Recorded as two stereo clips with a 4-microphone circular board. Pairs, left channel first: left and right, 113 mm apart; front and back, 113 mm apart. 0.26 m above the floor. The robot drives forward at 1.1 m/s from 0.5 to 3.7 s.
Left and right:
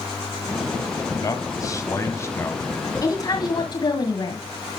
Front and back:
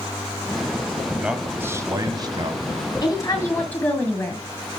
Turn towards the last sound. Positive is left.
turn(degrees=70)